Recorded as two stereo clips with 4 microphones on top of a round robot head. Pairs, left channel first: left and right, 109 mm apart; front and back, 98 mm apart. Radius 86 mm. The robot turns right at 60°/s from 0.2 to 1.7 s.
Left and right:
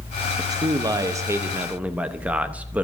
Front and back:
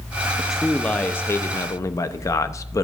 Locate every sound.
0.4 s a man speaking: 105° right, 0.7 m; by 2.8 s 25° right, 0.7 m